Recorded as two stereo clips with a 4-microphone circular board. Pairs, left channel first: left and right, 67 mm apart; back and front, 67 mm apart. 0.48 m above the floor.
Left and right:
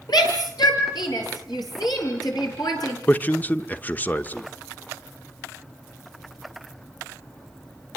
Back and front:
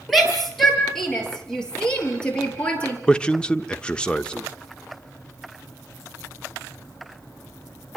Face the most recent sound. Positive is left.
turn(degrees=120)